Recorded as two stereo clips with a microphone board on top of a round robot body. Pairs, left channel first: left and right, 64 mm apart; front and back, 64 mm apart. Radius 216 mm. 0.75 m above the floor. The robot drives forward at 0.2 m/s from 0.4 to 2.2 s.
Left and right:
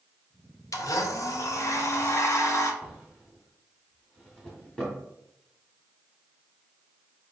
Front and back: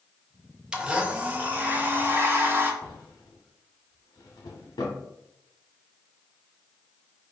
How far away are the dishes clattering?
No dishes clattering in this recording.